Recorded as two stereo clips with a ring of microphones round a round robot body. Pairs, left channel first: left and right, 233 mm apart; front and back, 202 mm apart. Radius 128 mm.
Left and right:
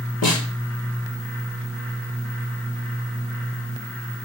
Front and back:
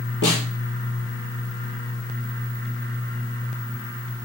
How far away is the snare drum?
About 3.5 m.